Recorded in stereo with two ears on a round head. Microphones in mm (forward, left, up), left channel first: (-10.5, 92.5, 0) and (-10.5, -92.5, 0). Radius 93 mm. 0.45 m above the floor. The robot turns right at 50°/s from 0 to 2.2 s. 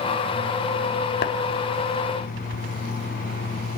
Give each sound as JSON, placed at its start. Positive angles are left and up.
{"t": 1.2, "sound": "tapping", "side_deg": 45, "distance_m": 1.8}